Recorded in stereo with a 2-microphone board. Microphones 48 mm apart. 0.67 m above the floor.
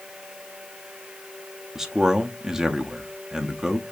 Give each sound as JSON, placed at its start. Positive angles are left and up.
{"t": 1.8, "sound": "a man speaking", "side_deg": -10, "distance_m": 0.7}